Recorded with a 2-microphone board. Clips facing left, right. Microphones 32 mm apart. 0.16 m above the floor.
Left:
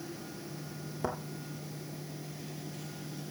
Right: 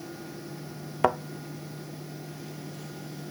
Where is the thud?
65° right (ahead or behind), 0.7 m.